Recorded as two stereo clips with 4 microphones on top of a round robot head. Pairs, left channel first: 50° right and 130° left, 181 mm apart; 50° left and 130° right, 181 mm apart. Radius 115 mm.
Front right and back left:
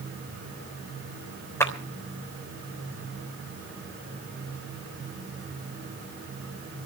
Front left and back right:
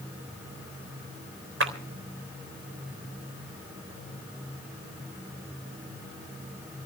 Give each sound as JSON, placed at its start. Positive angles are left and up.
{"t": 1.6, "sound": "a clap", "azimuth_deg": -125, "distance_m": 3.5}